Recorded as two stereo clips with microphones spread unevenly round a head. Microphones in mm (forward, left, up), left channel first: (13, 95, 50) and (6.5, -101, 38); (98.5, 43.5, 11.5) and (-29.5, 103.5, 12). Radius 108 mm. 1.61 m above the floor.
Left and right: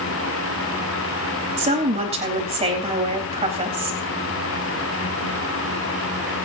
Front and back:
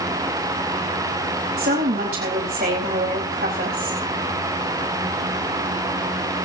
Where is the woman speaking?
155° right, 4 m.